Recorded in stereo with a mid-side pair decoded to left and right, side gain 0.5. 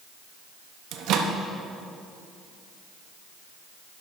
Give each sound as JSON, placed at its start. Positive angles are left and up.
{"t": 0.9, "sound": "a microwave", "azimuth_deg": -70, "distance_m": 0.8}